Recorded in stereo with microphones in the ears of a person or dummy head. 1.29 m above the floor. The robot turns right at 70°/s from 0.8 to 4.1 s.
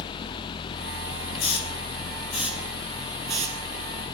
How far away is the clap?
I don't hear a clap.